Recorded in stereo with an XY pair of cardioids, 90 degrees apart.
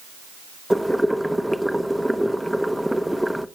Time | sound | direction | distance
0.7 | boiling | straight ahead | 0.9 m